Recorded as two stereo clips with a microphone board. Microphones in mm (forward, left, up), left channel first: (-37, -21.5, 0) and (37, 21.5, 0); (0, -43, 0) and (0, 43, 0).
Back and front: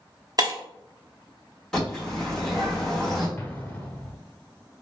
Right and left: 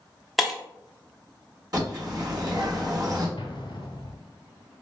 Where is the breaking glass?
Straight ahead, 0.6 m.